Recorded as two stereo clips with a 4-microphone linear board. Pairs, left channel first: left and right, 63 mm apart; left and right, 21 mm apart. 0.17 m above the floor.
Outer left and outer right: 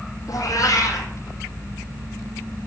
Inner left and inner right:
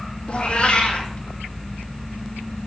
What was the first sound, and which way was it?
A cat meowing, 60° left (ahead or behind).